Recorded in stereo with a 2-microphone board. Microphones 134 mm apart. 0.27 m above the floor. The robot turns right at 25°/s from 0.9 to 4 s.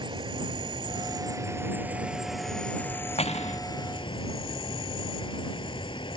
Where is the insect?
35° right; by 6.2 s 40° left.